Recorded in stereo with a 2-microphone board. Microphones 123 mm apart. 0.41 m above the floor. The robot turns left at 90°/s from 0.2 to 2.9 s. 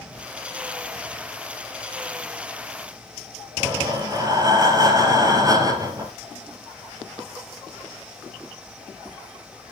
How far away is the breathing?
About 2 m.